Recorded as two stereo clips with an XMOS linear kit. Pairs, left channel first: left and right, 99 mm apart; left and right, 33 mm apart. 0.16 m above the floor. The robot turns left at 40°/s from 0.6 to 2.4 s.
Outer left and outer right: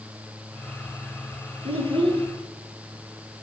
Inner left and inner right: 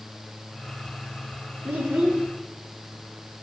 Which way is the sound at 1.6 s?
70° right (ahead or behind).